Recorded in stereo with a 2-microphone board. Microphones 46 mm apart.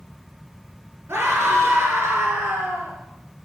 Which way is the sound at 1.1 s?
65° right (ahead or behind).